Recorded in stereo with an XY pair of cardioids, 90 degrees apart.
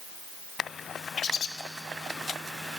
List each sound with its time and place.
1.2 s a bird: 55° left, 0.7 m